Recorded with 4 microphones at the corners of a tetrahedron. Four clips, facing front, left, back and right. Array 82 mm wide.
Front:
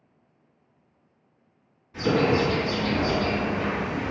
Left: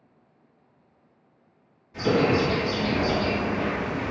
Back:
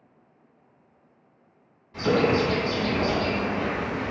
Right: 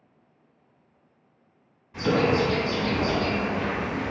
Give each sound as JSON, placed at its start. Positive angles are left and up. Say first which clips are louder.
{"t": 1.9, "sound": "a bird", "louder": "left 1 dB, even", "azimuth_deg": -105, "distance_m": 1.8}